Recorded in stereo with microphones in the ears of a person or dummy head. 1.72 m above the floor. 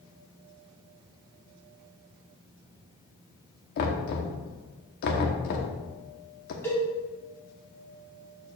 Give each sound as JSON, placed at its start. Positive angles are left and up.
{"t": 3.8, "sound": "knocking", "side_deg": 55, "distance_m": 1.0}
{"t": 6.6, "sound": "a cowbell", "side_deg": 10, "distance_m": 2.5}